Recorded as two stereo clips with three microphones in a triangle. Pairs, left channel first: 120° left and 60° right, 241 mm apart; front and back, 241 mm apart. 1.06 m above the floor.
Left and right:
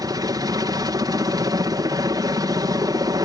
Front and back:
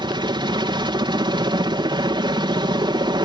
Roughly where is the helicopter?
Behind right.